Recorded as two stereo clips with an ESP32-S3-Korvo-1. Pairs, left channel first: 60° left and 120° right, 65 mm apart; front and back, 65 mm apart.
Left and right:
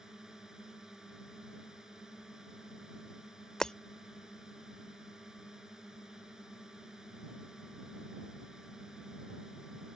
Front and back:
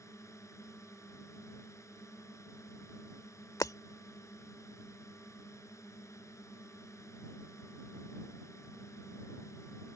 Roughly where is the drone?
Ahead right.